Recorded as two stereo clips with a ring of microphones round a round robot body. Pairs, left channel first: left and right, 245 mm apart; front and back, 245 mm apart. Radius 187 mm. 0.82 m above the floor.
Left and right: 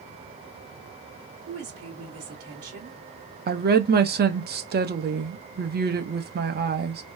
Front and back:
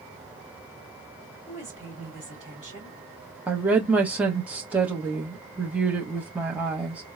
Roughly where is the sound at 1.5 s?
Ahead right.